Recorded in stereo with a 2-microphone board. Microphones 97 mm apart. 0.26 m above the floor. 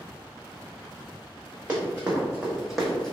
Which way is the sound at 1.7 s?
15° right (ahead or behind).